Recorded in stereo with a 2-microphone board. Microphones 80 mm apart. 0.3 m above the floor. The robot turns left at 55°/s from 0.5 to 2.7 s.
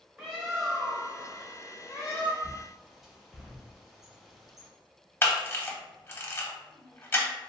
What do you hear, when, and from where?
0.2 s a bird: 160° right, 1.3 m; by 2.3 s 95° left, 1.3 m
2.4 s a bird: 10° right (ahead or behind), 1.0 m; by 4.7 s 5° right (ahead or behind), 1.0 m
5.2 s a camera shutter: 30° left (ahead or behind), 0.6 m